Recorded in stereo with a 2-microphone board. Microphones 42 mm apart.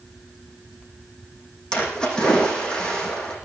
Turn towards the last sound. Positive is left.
turn(degrees=20)  # may be behind; listen again after turning